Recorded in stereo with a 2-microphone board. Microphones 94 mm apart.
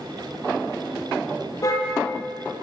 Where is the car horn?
35° left (ahead or behind), 8 m.